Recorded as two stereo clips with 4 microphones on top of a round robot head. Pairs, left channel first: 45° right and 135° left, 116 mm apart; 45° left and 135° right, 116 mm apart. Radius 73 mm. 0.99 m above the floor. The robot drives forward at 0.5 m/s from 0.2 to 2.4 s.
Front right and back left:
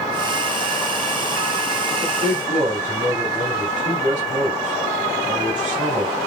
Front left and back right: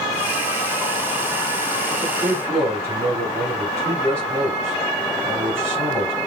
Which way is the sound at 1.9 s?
150° left.